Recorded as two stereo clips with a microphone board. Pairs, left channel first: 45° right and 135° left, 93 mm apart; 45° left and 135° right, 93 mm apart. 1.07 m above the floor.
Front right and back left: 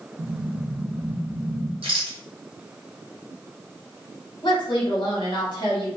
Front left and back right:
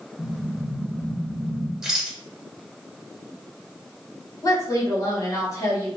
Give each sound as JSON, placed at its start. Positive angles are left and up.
{"t": 0.2, "sound": "an explosion", "azimuth_deg": 125, "distance_m": 0.7}
{"t": 1.8, "sound": "a rattle", "azimuth_deg": 140, "distance_m": 0.7}
{"t": 4.4, "sound": "a woman speaking", "azimuth_deg": -10, "distance_m": 1.2}